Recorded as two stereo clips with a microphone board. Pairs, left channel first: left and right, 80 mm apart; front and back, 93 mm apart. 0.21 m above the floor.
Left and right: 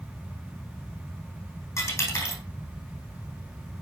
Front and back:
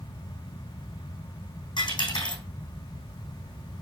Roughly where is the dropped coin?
Ahead left.